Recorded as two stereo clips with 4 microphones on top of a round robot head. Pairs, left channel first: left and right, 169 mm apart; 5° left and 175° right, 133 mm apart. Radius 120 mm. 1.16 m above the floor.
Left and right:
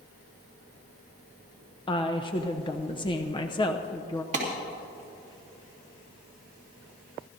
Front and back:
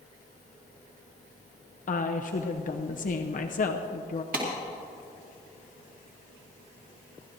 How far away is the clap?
About 3 m.